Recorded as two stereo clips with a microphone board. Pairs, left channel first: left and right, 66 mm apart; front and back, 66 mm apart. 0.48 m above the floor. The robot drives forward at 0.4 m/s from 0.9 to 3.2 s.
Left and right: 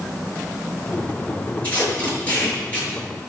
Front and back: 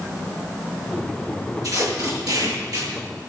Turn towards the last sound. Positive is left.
turn(degrees=160)